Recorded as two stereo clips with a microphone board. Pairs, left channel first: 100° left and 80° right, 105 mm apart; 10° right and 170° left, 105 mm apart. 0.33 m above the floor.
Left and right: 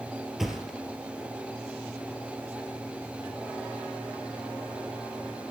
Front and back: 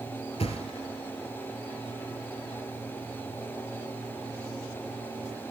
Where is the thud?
10° left, 1.8 m.